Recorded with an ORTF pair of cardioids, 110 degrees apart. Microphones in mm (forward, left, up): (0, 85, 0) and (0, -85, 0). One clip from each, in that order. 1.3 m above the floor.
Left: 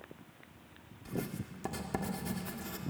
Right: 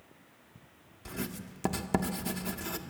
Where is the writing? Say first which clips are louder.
Even; 45° right, 1.6 m.